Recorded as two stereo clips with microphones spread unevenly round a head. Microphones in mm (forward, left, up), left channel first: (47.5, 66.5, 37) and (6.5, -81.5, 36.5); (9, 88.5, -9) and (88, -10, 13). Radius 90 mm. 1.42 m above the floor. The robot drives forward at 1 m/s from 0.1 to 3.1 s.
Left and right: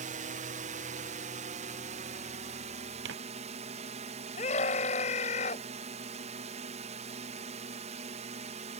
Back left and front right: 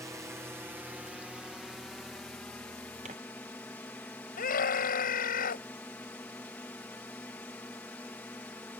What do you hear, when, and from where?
0.0 s a drone: 125° right; by 8.8 s 150° right
3.0 s tearing paper: 100° right; by 3.1 s 105° right
4.4 s a scream: 130° left